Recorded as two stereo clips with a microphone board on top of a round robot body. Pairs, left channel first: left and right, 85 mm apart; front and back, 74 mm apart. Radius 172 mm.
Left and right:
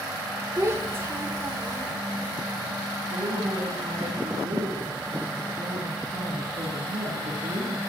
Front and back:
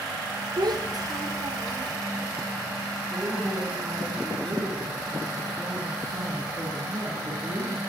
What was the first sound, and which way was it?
A child speaking, 150° right.